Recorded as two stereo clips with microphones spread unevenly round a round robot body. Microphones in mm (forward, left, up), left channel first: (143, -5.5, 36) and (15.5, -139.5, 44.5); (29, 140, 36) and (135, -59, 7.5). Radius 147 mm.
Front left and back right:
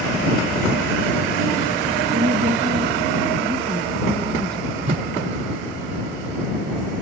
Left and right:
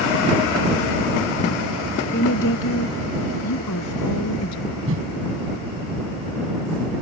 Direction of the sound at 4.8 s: 90° right.